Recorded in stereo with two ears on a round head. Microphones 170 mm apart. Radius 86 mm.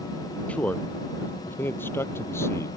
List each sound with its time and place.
0.5 s a man speaking: 5° left (ahead or behind); by 2.7 s 15° left (ahead or behind)